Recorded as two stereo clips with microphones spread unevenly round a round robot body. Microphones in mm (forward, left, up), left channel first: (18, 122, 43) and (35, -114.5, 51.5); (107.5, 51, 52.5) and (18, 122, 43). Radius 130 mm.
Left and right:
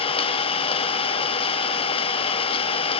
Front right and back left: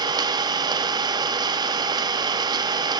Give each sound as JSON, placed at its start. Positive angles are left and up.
{"t": 0.0, "sound": "an engine running", "azimuth_deg": 145, "distance_m": 1.0}